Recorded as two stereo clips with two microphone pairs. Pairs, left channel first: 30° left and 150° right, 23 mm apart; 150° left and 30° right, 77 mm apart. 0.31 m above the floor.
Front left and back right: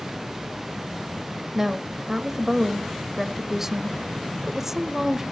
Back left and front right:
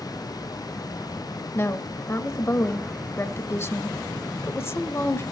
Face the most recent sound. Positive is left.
turn(degrees=150)